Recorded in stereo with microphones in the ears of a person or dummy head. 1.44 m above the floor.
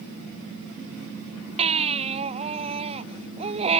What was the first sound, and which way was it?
A baby crying, 35° right (ahead or behind).